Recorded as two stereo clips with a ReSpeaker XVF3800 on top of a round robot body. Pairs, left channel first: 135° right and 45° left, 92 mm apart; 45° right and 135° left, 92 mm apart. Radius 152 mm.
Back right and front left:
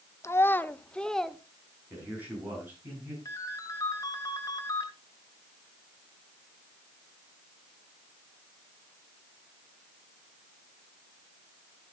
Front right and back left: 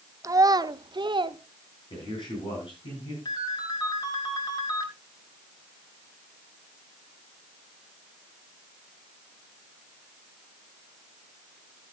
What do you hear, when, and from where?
0.2 s a child speaking: 175° left, 1.0 m; by 1.4 s 135° left, 1.3 m
1.9 s a man speaking: 25° right, 7.5 m
3.2 s a ringtone: 85° right, 2.5 m